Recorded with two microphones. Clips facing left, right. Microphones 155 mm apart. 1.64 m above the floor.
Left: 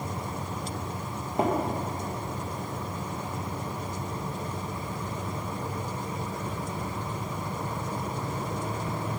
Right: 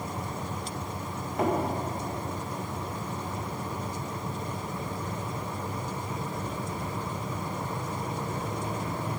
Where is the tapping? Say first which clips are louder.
Left 1 dB; 30° left (ahead or behind), 2.5 m.